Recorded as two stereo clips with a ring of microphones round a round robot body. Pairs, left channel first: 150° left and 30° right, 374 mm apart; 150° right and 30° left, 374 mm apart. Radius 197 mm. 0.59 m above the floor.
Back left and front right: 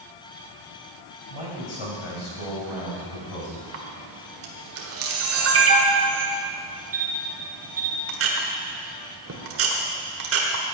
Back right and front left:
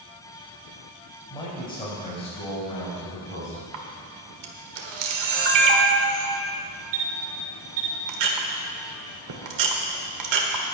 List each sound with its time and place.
1.3 s a man speaking: 130° left, 4 m; by 3.6 s 140° left, 5.5 m
3.7 s a camera shutter: 25° left, 1.6 m